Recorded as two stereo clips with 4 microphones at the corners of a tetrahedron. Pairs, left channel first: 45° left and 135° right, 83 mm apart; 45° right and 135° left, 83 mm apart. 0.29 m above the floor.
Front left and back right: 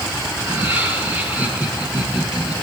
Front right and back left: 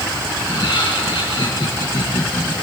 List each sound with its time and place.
0.4 s laughter: 70° right, 6.5 m; by 2.5 s 55° right, 6 m